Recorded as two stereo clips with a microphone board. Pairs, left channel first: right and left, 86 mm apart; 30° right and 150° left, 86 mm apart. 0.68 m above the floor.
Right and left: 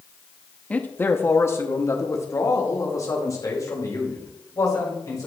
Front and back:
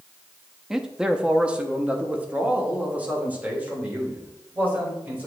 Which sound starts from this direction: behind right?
A man speaking, at 0.7 s.